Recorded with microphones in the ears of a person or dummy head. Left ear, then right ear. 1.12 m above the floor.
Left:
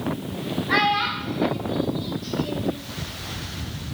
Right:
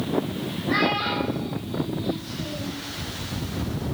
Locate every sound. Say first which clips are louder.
0.7 s a child speaking: left 2 dB; 35° left (ahead or behind), 1.7 m; by 2.8 s 80° left, 4 m